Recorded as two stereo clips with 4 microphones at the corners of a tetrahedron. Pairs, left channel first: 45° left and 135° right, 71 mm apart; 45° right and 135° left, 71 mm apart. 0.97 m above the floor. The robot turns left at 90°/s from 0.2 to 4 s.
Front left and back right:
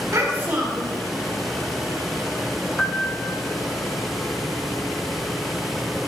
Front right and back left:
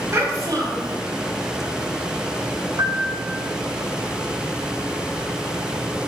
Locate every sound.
0.1 s a child speaking: 175° right, 3 m; by 1.0 s 115° left, 3 m
2.8 s a piano: 125° left, 0.8 m; by 3.4 s 65° left, 0.8 m